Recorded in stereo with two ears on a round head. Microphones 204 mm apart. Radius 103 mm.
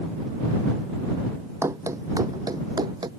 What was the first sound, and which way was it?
Running footsteps, 10° right (ahead or behind).